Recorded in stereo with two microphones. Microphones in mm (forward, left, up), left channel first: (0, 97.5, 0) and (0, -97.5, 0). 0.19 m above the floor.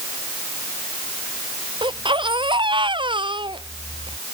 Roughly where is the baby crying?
Right.